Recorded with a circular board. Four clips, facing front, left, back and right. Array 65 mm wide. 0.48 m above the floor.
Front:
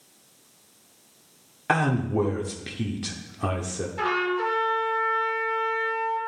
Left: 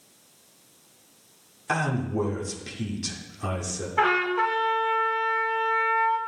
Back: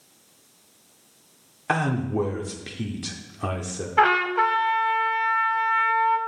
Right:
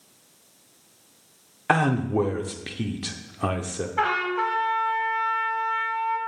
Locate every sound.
1.7 s a man speaking: 85° right, 0.8 m
4.0 s a trumpet: 175° left, 0.9 m